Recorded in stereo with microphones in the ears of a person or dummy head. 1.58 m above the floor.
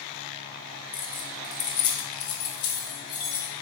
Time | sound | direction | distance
0.9 | keys jangling | 50° left (ahead or behind) | 1.1 m